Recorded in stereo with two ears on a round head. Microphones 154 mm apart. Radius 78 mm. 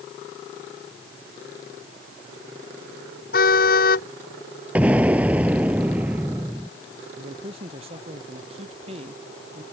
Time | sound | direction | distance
3.3 | a car horn | 55° left (ahead or behind) | ?
4.8 | an explosion | 10° right (ahead or behind) | ?
7.2 | a man speaking | 35° right (ahead or behind) | ?